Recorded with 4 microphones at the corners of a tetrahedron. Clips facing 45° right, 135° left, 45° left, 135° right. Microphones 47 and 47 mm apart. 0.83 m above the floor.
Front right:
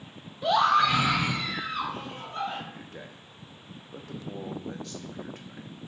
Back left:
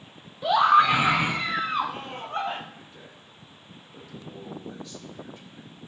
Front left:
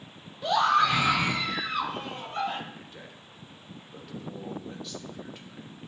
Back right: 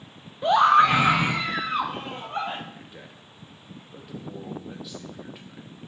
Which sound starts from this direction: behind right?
A scream, at 0.4 s.